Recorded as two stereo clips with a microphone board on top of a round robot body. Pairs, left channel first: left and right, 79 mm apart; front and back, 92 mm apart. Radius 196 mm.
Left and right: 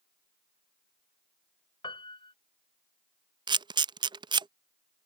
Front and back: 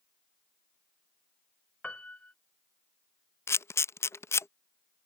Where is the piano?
75° left.